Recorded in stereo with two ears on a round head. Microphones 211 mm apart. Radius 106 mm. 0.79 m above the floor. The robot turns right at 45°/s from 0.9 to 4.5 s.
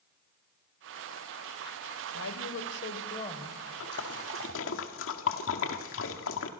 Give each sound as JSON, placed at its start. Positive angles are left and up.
{"t": 2.1, "sound": "a woman speaking", "azimuth_deg": 105, "distance_m": 3.0}
{"t": 3.8, "sound": "a splash", "side_deg": 60, "distance_m": 1.9}